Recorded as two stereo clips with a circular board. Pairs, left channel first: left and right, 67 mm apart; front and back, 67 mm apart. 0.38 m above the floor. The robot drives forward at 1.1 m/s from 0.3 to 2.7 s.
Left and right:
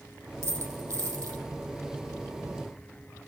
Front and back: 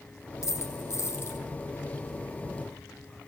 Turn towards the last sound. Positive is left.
turn(degrees=-65)